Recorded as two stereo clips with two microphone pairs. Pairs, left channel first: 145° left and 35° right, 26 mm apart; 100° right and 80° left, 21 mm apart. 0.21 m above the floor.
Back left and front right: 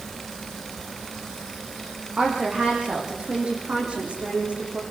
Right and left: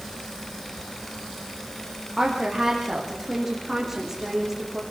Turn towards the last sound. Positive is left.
turn(degrees=5)